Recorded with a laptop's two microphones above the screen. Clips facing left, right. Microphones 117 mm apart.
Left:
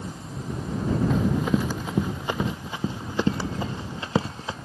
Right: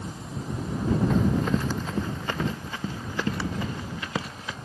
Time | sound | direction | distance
1.1 | running footsteps | 5° left (ahead or behind) | ?